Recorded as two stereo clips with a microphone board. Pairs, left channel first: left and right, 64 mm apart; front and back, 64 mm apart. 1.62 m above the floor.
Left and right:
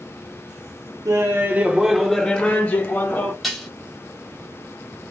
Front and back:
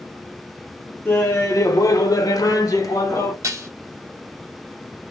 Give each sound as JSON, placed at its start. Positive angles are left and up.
{"t": 1.1, "sound": "laughter", "azimuth_deg": -60, "distance_m": 0.8}
{"t": 3.4, "sound": "dishes clattering", "azimuth_deg": -175, "distance_m": 1.0}